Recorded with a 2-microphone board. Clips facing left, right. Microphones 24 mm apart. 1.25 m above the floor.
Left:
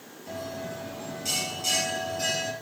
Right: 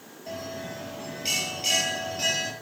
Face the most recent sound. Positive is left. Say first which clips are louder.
# even
turn(degrees=-40)  # may be behind; listen again after turning